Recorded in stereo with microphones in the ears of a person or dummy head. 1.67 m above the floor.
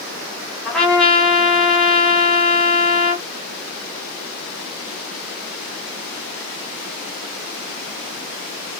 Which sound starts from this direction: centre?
A trumpet, at 0.7 s.